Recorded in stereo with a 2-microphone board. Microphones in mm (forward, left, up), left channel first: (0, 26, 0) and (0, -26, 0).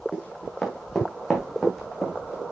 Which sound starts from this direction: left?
Running footsteps, at 0.1 s.